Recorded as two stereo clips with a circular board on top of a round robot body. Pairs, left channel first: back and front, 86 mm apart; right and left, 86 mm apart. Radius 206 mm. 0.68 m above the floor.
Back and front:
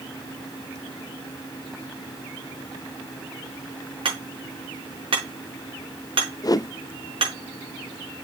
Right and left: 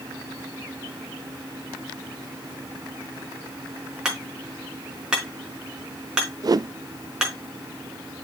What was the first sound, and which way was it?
Hammering, 10° left.